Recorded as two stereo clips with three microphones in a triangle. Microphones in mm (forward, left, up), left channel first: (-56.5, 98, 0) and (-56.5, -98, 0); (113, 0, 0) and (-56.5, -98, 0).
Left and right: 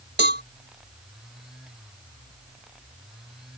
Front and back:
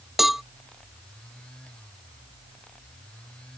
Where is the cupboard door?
No cupboard door in this recording.